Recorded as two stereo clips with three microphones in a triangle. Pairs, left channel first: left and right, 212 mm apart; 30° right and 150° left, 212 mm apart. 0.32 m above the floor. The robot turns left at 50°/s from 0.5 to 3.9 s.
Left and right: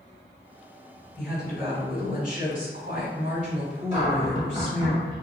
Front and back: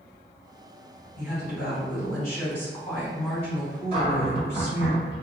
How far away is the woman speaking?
About 2.0 m.